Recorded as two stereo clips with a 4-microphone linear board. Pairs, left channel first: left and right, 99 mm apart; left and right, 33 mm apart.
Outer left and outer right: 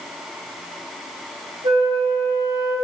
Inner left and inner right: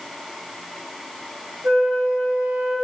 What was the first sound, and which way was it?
A flute, 75° right (ahead or behind).